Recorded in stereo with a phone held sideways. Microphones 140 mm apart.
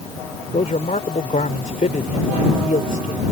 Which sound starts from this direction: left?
A man speaking, at 0.5 s.